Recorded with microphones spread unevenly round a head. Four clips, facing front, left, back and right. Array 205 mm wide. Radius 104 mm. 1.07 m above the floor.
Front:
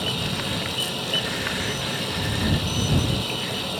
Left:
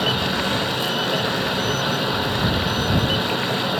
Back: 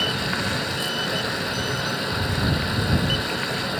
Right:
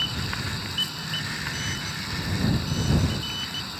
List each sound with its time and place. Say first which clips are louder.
0.0 s running water: left 11 dB, back 3 dB; 100° left